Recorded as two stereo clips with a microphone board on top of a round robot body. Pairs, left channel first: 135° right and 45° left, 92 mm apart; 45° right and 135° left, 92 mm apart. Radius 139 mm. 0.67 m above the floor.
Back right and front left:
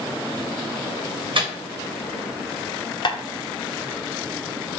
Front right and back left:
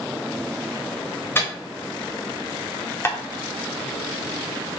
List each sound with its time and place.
1.4 s a microwave: 20° left, 1.1 m
3.0 s tapping: 105° right, 0.8 m